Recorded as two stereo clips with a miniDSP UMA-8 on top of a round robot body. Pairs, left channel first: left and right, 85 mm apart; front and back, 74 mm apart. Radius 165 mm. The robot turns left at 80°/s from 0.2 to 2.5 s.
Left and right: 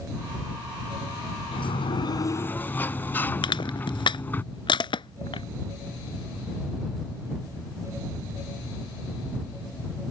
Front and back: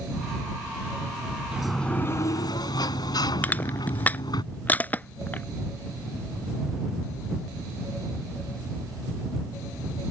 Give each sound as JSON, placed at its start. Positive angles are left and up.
{"t": 1.5, "sound": "a sliding door", "azimuth_deg": 100}
{"t": 3.4, "sound": "crushing", "azimuth_deg": 65}